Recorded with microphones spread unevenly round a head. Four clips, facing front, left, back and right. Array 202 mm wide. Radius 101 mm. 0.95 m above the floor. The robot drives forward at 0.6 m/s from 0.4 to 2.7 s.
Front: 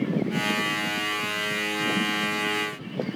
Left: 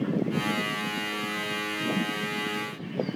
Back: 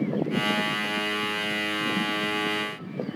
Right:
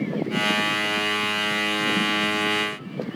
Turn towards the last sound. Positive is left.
No sound to turn to.